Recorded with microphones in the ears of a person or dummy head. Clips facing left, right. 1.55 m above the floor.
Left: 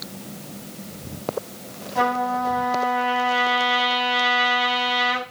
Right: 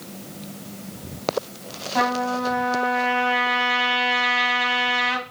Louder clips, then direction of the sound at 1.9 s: Left 1 dB; 75° right (ahead or behind).